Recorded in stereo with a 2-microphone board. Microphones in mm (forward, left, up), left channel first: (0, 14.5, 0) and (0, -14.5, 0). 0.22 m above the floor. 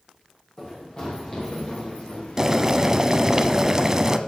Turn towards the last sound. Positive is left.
turn(degrees=-25)  # may be behind; listen again after turning